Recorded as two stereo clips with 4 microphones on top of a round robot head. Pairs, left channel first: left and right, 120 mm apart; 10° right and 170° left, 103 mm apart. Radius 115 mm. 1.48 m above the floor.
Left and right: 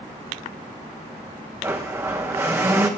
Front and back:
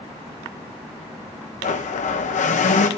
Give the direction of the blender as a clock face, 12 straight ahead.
1 o'clock.